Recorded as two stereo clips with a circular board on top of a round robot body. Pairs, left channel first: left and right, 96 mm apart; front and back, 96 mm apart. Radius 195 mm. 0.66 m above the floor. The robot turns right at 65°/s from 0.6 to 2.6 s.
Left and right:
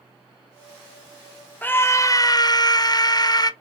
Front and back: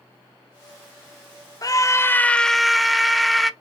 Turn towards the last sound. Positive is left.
turn(degrees=90)